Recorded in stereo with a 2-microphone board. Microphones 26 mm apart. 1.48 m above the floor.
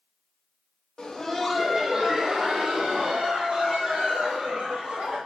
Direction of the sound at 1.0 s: 30° left (ahead or behind).